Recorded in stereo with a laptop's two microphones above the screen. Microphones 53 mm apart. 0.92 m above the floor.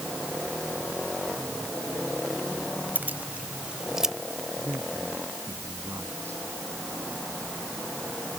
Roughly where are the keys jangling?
Right.